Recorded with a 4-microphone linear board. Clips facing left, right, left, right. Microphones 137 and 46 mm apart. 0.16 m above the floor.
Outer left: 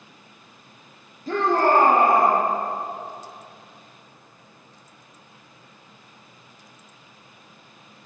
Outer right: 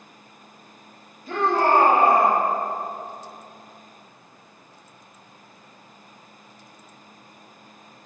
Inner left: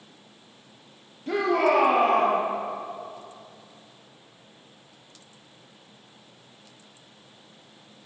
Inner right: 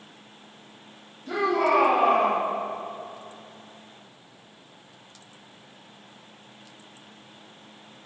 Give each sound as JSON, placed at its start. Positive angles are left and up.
{"t": 1.3, "sound": "a shout", "side_deg": 40, "distance_m": 3.5}